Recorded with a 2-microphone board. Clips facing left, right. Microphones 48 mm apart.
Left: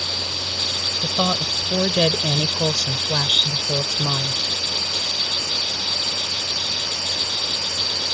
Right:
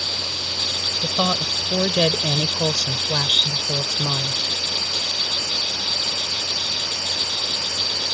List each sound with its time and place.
1.0 s a woman speaking: 15° right (ahead or behind); by 4.4 s 30° left (ahead or behind)